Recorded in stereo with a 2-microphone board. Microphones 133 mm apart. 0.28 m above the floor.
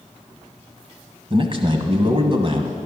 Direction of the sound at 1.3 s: 40° right (ahead or behind).